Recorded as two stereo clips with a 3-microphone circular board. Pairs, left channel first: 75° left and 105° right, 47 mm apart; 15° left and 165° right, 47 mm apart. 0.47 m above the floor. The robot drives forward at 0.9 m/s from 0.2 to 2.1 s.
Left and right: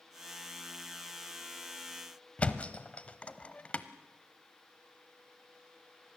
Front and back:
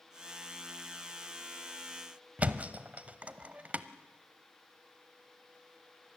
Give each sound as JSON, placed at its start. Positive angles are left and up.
{"t": 2.4, "sound": "a thud", "azimuth_deg": 135, "distance_m": 0.9}